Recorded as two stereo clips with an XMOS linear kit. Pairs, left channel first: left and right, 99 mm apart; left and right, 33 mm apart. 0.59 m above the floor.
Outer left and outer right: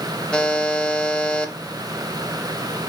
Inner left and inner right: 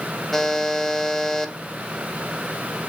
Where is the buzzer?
10° left (ahead or behind), 0.6 m.